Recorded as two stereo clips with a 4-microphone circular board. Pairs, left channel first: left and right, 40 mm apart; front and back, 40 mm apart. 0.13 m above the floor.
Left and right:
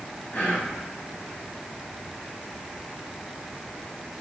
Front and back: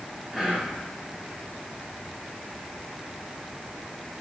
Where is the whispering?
120° left, 1.3 m.